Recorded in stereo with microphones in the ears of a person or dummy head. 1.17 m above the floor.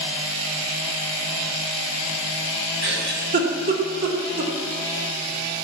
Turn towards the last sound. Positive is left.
turn(degrees=-60)  # may be behind; listen again after turning